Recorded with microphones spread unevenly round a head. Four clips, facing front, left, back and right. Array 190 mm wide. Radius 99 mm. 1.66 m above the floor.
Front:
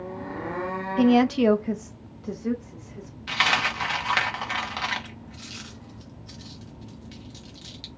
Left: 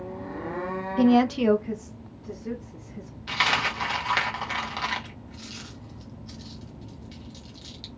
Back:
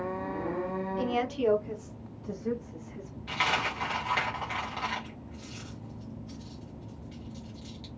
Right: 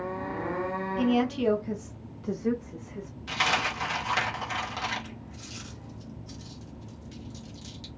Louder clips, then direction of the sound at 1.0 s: Left 6 dB, front 12 dB; 40° left.